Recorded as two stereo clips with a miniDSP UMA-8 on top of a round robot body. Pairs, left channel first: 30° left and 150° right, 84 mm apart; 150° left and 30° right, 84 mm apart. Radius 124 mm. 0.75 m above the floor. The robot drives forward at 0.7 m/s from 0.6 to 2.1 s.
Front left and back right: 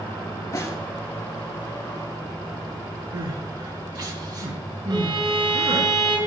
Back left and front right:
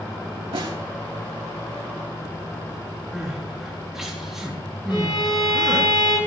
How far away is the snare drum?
About 3.5 m.